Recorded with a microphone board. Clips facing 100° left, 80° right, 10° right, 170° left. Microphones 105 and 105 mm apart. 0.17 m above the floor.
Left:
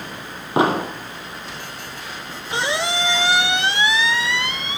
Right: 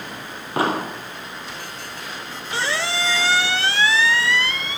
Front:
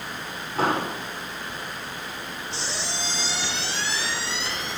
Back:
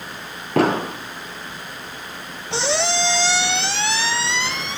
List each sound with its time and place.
0.6 s an explosion: 170° left, 2.5 m
2.5 s a squeak: 170° left, 0.6 m